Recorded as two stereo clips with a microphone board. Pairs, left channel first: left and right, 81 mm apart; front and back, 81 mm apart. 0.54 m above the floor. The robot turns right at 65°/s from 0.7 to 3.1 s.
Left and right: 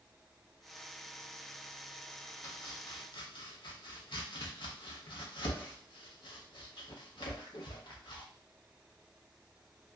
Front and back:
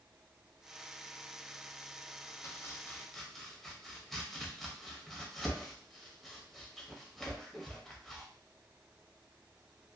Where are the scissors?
I don't hear scissors.